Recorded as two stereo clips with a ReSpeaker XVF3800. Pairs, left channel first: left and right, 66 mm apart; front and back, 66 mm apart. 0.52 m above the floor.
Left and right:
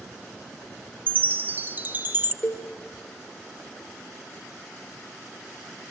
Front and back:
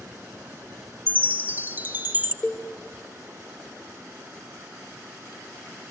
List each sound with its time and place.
1.1 s a chime: 135° right, 1.7 m
2.4 s a cowbell: 70° left, 1.6 m